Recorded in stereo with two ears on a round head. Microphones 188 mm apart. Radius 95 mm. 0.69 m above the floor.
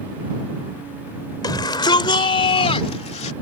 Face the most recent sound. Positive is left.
turn(degrees=30)  # may be behind; listen again after turning